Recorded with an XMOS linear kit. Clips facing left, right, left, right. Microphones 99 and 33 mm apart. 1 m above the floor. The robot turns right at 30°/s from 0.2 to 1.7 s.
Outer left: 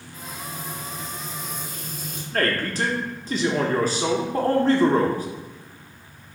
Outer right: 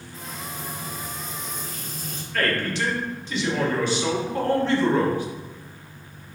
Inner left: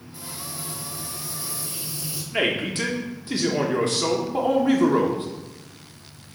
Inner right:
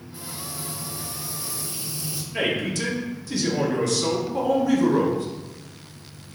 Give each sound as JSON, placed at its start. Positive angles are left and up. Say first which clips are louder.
{"t": 0.1, "sound": "frying", "louder": "even, even", "azimuth_deg": -35, "distance_m": 2.5}
{"t": 2.3, "sound": "a man speaking", "louder": "outer left 1 dB, inner left 1 dB", "side_deg": 40, "distance_m": 1.1}